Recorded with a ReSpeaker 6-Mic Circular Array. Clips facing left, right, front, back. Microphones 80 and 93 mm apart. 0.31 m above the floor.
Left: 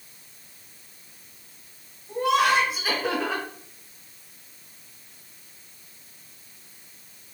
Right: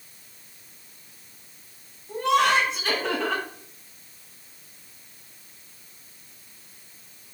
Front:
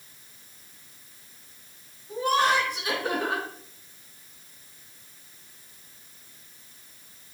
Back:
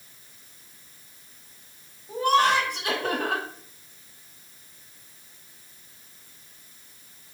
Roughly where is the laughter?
Behind.